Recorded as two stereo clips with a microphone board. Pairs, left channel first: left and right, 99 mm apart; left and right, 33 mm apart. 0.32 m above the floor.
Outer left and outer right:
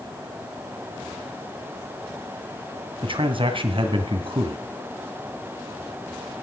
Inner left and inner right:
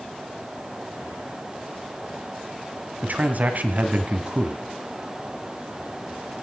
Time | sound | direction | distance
3.0 | a man speaking | 55° right (ahead or behind) | 2 m